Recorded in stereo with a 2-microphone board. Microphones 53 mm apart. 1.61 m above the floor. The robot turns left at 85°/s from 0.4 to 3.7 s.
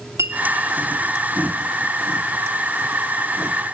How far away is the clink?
About 2.5 m.